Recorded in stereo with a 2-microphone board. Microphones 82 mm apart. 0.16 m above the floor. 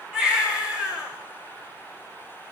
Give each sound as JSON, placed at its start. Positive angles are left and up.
{"t": 0.1, "sound": "a baby crying", "side_deg": -10, "distance_m": 9.5}